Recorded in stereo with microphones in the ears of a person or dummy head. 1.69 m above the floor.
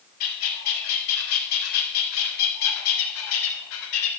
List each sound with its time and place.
0.2 s a bird: 75° left (ahead or behind), 1.5 m